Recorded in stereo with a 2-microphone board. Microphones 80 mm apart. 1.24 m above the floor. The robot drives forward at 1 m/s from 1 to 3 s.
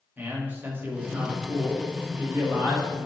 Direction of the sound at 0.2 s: 25° right (ahead or behind).